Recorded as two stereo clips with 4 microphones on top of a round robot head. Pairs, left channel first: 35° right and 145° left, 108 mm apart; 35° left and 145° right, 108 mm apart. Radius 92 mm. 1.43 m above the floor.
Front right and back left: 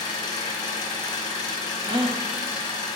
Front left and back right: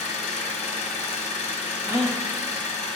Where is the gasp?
170° left, 0.6 m.